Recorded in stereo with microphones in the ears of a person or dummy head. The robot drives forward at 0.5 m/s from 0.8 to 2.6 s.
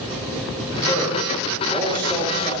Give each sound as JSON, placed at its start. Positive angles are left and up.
{"t": 0.7, "sound": "a man speaking", "side_deg": -25, "distance_m": 5.5}